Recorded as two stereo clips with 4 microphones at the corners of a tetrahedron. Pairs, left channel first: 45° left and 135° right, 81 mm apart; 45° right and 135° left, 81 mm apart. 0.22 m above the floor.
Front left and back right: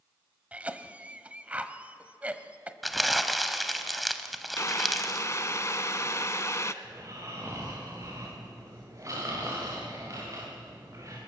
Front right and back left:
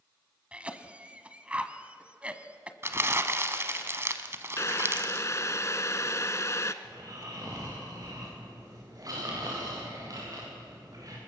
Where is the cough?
175° right, 1.1 m.